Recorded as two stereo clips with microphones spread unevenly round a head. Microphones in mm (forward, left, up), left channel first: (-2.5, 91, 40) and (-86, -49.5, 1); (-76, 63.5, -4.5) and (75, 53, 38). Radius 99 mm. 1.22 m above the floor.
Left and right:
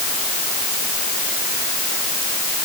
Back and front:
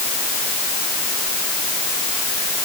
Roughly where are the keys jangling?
I don't hear keys jangling.